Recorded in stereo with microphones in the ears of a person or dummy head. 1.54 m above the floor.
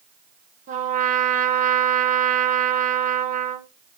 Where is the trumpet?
45° right (ahead or behind), 0.9 m.